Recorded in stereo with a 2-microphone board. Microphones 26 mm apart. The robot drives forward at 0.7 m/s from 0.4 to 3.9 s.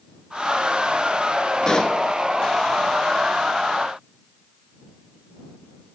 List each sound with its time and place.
1.6 s a pop: 30° left (ahead or behind), 1.4 m